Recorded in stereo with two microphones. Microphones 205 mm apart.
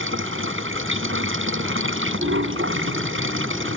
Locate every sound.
0.0 s running water: 75° right (ahead or behind)